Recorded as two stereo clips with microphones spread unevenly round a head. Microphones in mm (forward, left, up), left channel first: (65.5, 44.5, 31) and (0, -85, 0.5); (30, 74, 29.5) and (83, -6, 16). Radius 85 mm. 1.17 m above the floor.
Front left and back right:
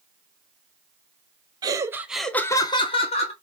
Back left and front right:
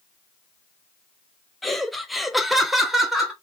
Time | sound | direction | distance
1.6 | laughter | 140° right | 0.7 m